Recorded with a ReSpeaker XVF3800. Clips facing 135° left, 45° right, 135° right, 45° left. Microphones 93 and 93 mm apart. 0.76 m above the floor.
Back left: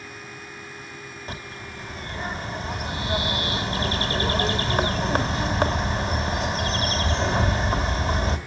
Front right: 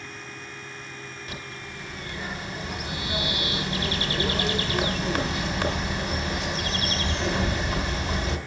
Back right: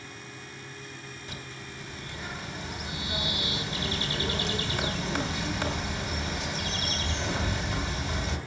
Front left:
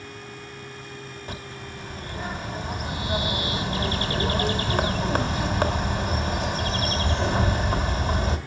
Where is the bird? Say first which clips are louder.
Back left 2 dB, front left 6 dB; 85° left, 2.5 m.